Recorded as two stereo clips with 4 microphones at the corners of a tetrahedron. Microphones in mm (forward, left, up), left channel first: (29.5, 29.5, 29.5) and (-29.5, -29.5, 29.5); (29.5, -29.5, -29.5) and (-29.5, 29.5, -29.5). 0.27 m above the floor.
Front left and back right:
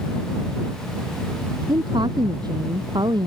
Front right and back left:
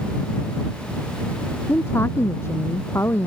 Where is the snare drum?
I don't hear a snare drum.